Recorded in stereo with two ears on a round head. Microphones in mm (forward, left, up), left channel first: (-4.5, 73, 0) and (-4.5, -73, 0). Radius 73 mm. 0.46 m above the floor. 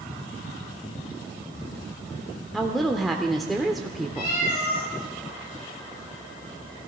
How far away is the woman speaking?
About 0.9 m.